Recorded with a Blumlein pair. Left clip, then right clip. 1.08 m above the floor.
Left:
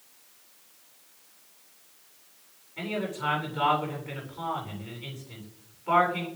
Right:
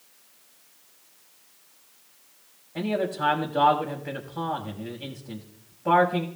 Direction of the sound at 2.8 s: 45° right.